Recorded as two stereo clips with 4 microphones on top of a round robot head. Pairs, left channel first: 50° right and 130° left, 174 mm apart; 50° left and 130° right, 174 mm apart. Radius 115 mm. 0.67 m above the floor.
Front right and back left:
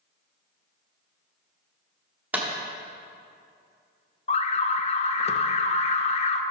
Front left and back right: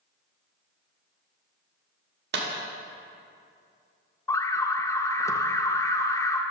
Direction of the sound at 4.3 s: 15° right.